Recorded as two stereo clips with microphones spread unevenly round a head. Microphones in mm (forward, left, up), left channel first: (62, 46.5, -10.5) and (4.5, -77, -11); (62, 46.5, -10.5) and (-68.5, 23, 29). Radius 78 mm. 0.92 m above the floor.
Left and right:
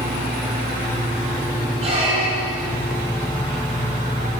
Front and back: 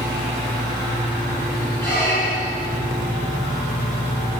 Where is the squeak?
70° right, 5 m.